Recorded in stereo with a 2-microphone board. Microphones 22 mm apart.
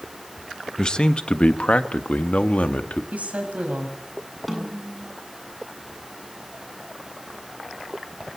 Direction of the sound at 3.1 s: 75° right (ahead or behind).